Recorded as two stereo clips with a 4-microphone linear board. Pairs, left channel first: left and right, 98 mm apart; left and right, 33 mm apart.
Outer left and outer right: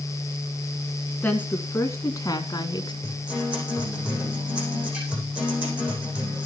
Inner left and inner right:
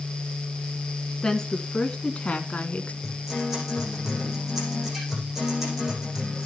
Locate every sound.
1.2 s a woman speaking: 15° left (ahead or behind), 2 m; by 2.9 s 50° left (ahead or behind), 2 m
3.0 s a guitar: 10° right (ahead or behind), 8 m